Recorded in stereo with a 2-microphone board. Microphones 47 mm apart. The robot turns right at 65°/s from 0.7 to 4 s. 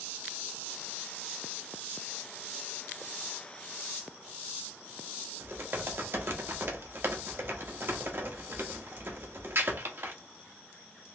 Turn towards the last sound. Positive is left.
turn(degrees=-55)  # may be behind; listen again after turning